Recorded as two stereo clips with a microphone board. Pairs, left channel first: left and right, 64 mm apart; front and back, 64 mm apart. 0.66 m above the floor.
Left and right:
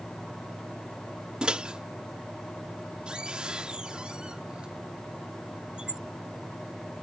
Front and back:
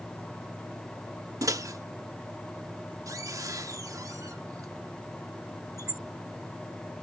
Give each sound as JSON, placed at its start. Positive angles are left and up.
{"t": 1.4, "sound": "a microwave", "azimuth_deg": -165}